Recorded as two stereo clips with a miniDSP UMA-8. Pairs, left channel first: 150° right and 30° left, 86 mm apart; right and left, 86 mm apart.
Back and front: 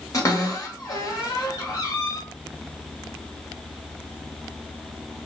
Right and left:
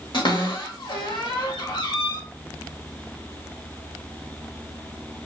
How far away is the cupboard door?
About 1.1 m.